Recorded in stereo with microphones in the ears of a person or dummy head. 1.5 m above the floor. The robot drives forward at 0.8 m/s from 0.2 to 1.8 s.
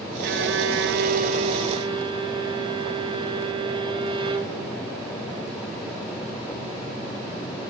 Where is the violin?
50° right (ahead or behind), 0.7 m; by 4.6 s 30° right (ahead or behind), 1.1 m.